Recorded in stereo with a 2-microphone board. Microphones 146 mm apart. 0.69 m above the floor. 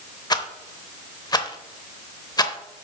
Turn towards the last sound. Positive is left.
turn(degrees=30)  # may be behind; listen again after turning